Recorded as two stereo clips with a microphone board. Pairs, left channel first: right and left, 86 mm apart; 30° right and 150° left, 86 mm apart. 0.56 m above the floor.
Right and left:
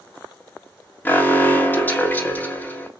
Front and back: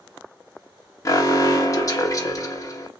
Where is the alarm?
35° right, 0.8 m.